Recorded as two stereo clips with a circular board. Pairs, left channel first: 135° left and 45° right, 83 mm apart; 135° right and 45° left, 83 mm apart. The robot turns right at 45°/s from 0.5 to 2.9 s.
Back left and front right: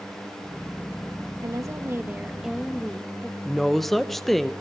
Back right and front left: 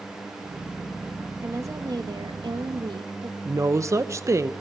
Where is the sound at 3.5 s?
45° left, 0.8 m.